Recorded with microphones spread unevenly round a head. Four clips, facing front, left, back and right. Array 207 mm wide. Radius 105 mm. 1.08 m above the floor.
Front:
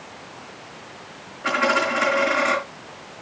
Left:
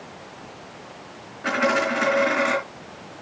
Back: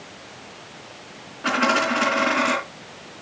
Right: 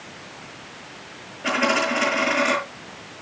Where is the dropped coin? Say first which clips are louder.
Even, even; 160° left, 4 m.